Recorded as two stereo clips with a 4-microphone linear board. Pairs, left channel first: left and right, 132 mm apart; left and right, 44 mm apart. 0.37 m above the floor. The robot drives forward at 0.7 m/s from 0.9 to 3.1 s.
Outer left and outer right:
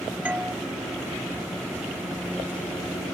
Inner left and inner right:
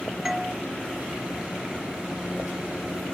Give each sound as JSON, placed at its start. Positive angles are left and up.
{"t": 0.2, "sound": "a doorbell", "side_deg": -10}